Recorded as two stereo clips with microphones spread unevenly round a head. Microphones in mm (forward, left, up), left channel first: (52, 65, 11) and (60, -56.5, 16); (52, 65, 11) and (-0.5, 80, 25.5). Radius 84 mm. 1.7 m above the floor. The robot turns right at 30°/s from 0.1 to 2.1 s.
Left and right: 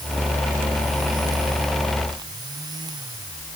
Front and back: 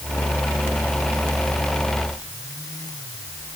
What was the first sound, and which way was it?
Only background noise.